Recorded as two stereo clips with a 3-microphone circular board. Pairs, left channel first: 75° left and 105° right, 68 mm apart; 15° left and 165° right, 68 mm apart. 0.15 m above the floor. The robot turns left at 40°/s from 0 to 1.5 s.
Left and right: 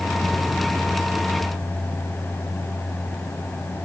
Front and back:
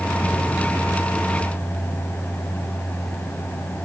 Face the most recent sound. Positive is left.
No sound to turn to.